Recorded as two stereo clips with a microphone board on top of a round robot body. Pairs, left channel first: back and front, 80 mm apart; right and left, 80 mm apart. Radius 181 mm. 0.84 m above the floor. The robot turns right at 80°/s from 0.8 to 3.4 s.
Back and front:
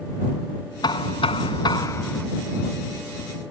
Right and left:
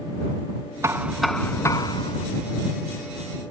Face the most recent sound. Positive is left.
turn(degrees=-5)